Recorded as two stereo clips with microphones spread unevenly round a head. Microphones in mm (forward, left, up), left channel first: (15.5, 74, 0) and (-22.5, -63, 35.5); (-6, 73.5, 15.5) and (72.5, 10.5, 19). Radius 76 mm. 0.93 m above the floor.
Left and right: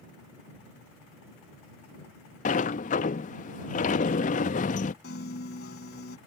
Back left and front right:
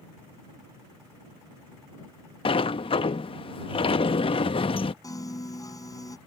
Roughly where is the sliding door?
Left.